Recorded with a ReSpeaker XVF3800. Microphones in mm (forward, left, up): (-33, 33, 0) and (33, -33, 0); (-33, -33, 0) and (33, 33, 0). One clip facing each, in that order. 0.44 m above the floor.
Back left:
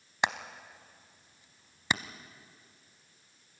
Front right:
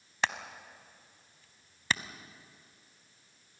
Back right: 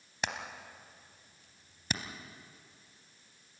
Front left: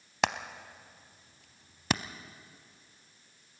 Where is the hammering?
60° left, 0.8 m.